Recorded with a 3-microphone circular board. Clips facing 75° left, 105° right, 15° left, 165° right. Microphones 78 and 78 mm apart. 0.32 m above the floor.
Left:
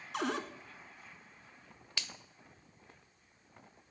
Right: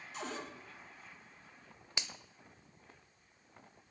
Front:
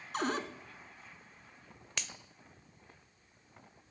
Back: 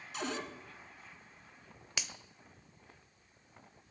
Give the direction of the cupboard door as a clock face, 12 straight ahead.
10 o'clock.